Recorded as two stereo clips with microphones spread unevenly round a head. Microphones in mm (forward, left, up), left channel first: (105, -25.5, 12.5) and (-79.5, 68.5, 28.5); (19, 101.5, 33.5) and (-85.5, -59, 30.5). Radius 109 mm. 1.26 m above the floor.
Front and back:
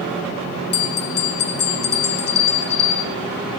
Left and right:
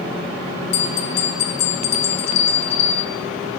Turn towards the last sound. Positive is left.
turn(degrees=15)